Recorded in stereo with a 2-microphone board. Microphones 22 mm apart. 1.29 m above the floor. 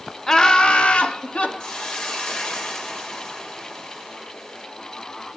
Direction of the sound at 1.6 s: 40° left (ahead or behind).